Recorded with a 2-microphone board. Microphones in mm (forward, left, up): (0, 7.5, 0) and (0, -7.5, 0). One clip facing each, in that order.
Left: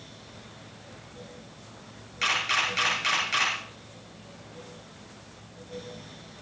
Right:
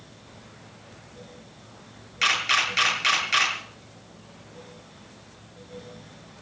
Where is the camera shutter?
15° right (ahead or behind), 5.5 m.